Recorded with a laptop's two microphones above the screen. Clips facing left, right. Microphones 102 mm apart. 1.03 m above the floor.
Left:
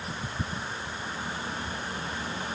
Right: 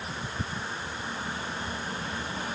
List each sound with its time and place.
Only background noise.